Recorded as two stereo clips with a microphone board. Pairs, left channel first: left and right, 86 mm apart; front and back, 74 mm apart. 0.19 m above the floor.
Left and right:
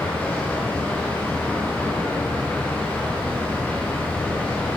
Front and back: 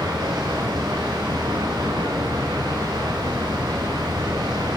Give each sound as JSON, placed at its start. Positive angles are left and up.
{"t": 0.0, "sound": "running water", "azimuth_deg": 165, "distance_m": 8.0}